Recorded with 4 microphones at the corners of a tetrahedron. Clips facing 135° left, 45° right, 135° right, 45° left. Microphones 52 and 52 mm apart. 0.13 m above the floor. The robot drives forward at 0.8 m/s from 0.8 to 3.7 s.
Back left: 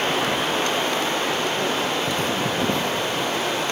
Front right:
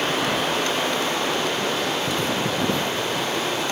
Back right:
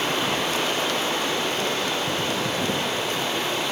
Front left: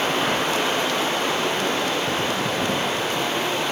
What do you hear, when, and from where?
0.0 s running water: 75° left, 8.5 m; by 3.7 s 90° left, 8.5 m